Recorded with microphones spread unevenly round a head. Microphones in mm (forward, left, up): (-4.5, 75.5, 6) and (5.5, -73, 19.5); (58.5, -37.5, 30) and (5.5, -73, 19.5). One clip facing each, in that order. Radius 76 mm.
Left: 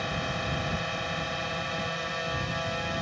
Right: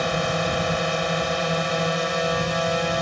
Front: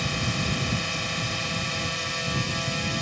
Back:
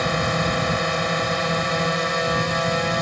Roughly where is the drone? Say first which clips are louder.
Right 9 dB, back 8 dB; behind right.